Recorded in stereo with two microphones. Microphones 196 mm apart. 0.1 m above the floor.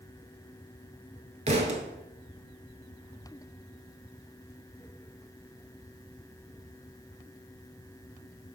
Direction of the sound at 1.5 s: 35° right (ahead or behind).